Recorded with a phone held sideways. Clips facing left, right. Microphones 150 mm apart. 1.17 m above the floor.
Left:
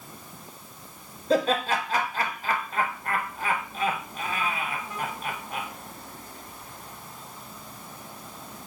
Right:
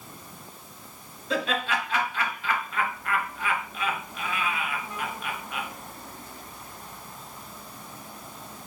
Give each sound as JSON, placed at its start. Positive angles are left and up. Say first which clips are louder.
{"t": 1.3, "sound": "laughter", "louder": "left 5 dB", "side_deg": 40, "distance_m": 0.9}